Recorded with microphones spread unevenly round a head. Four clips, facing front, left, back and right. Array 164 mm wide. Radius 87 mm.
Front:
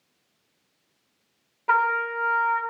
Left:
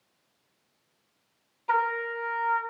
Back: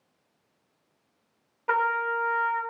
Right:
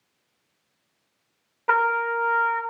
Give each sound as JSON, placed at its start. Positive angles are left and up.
{"t": 1.7, "sound": "a trumpet", "azimuth_deg": -80, "distance_m": 0.6}